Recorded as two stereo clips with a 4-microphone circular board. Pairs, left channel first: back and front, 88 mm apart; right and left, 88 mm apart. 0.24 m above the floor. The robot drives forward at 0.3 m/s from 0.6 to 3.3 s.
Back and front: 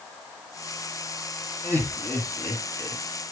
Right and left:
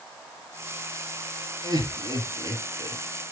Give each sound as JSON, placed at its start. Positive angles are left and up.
{"t": 1.6, "sound": "laughter", "azimuth_deg": 120, "distance_m": 2.5}